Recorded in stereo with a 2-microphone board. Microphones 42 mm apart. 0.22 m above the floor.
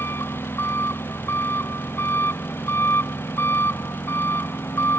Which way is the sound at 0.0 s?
70° left (ahead or behind).